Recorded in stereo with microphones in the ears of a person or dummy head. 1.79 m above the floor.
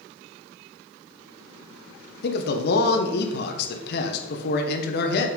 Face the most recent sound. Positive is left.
turn(degrees=60)  # may be behind; listen again after turning